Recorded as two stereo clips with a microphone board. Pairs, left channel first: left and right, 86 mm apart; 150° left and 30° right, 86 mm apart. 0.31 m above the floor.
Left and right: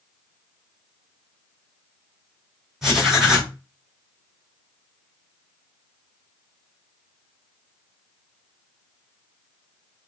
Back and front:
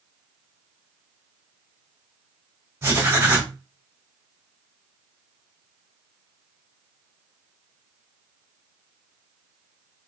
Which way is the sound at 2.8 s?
5° right.